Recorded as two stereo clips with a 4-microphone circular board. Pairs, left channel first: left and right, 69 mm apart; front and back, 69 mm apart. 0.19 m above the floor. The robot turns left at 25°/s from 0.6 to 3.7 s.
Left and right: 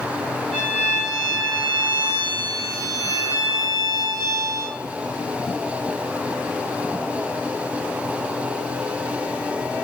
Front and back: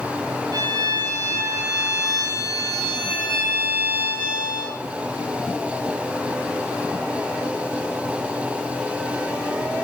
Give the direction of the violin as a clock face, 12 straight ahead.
5 o'clock.